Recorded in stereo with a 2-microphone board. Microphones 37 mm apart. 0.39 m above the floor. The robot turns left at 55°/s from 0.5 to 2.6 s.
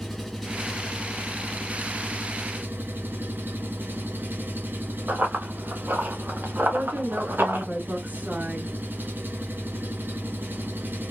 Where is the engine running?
5° left, 2.5 m; by 11.1 s 110° right, 2.5 m.